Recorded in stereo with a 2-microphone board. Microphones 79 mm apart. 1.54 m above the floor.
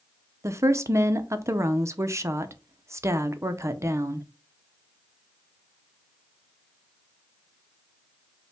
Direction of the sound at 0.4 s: 40° right (ahead or behind).